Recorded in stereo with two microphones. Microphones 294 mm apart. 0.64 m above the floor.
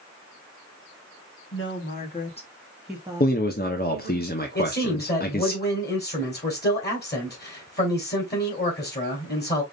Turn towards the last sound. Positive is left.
turn(degrees=35)  # may be behind; listen again after turning